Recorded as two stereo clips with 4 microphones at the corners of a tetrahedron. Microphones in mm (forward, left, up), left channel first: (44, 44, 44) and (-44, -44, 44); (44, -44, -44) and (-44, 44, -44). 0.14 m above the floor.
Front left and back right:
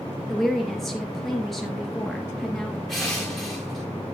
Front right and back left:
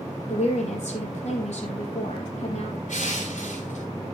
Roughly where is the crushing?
Ahead right.